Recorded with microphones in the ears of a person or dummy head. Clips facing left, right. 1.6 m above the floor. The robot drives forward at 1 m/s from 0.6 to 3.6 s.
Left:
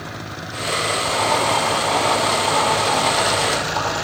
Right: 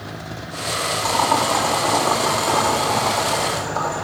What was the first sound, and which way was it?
Boiling, 60° right (ahead or behind).